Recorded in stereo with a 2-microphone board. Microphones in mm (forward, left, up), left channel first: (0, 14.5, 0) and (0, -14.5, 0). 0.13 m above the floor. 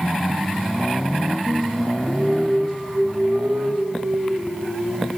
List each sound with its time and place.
1.4 s singing: 80° right, 7 m